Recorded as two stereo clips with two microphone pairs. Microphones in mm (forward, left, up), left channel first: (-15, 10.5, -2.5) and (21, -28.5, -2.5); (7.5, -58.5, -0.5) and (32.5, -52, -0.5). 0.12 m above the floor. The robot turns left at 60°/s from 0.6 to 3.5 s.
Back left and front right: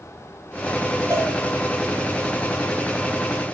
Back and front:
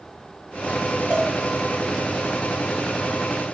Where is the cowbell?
35° right, 3 m; by 1.3 s 45° right, 3 m.